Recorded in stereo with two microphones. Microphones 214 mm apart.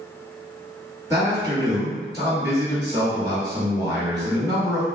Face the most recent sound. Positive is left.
turn(degrees=-15)  # may be behind; listen again after turning